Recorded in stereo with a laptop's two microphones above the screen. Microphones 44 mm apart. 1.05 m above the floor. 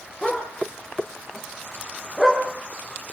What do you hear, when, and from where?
0.2 s a dog barking: centre (ahead or behind), 6.5 m; by 2.4 s 10° right (ahead or behind), 5 m